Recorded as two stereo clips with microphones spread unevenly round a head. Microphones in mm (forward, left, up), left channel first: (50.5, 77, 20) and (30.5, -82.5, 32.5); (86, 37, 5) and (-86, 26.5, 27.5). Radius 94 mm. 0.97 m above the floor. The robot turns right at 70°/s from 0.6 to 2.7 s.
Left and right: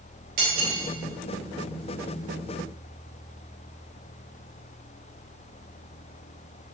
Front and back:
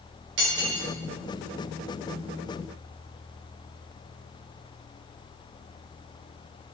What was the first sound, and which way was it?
Cutlery clinking, 140° right.